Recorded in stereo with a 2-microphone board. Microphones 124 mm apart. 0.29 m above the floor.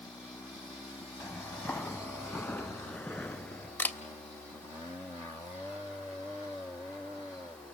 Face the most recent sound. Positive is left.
turn(degrees=15)  # may be behind; listen again after turning